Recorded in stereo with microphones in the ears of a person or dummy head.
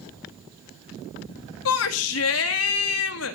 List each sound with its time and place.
1.6 s a shout: 75° left (ahead or behind), 2 m